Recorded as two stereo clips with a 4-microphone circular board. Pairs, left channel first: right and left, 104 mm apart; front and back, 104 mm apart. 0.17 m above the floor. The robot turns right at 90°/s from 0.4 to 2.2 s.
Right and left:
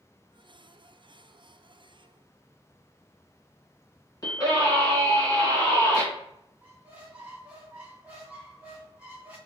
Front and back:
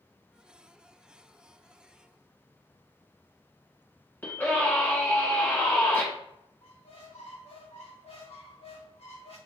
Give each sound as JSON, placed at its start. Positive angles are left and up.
{"t": 4.2, "sound": "a scream", "azimuth_deg": -60, "distance_m": 1.7}
{"t": 6.6, "sound": "a squeak", "azimuth_deg": 15, "distance_m": 1.1}